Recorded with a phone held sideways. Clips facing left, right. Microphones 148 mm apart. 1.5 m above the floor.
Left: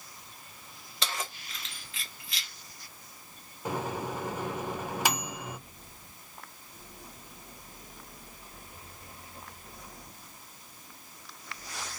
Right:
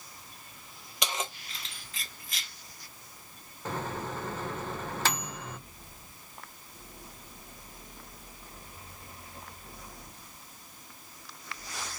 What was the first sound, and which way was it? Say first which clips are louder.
Keys jangling: right 2 dB; 15° right (ahead or behind).